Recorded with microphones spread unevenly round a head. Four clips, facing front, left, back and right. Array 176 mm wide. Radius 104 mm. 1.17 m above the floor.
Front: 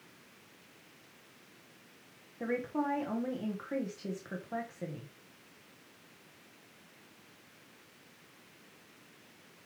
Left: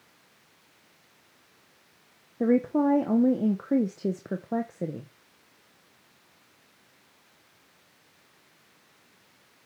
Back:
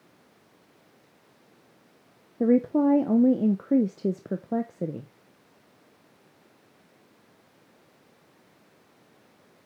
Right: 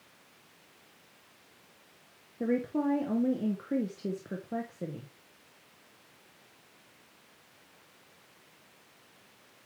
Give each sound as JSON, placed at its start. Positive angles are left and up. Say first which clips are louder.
{"t": 2.4, "sound": "a woman speaking", "louder": "left 7 dB, back 13 dB", "azimuth_deg": 155, "distance_m": 0.6}